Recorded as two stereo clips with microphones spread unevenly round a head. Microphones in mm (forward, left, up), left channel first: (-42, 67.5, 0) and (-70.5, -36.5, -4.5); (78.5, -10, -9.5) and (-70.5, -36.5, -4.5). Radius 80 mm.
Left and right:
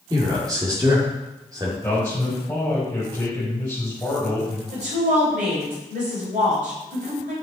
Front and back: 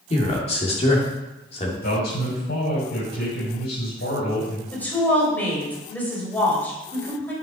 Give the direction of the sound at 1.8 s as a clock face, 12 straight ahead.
12 o'clock.